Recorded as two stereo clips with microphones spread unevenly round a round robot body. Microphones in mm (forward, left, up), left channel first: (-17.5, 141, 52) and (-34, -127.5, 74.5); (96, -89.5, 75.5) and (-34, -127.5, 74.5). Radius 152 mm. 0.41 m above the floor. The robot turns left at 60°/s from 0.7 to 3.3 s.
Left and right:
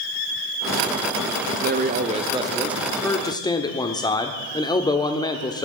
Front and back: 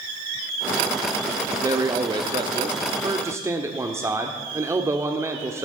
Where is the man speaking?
115° right, 1.2 m; by 5.7 s 140° left, 1.2 m.